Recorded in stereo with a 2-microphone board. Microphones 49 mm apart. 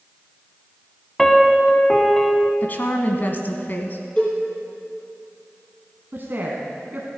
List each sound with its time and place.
1.2 s a piano: 10° left (ahead or behind), 0.7 m
2.6 s a woman speaking: 40° left (ahead or behind), 1.2 m
4.2 s a cowbell: 25° left (ahead or behind), 4 m
6.1 s a woman speaking: 45° right (ahead or behind), 1.5 m